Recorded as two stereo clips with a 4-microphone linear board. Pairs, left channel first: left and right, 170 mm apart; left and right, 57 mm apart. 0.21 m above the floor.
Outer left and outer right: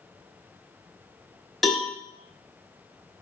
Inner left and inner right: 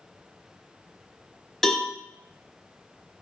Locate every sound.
1.6 s a cowbell: centre (ahead or behind), 1.4 m